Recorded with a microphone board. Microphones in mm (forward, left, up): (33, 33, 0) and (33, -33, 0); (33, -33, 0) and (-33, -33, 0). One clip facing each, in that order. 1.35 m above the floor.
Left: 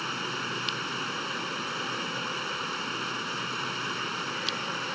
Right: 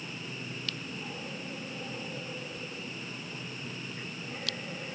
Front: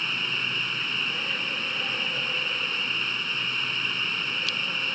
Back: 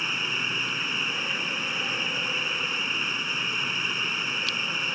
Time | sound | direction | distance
0.0 | running water | 100° left | ?